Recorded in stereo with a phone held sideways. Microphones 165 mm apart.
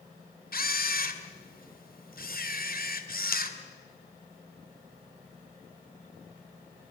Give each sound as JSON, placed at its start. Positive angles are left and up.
{"t": 0.5, "sound": "a camera shutter", "side_deg": 65, "distance_m": 2.0}